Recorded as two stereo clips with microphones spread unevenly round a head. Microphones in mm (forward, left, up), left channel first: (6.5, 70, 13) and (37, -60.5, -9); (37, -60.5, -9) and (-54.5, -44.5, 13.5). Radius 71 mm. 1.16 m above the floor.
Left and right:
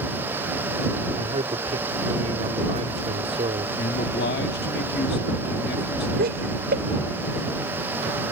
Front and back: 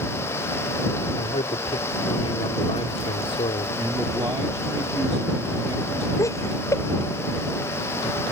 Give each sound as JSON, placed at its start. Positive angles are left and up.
{"t": 1.2, "sound": "a man speaking", "azimuth_deg": -30}
{"t": 3.8, "sound": "a man speaking", "azimuth_deg": 100}
{"t": 6.2, "sound": "laughter", "azimuth_deg": -70}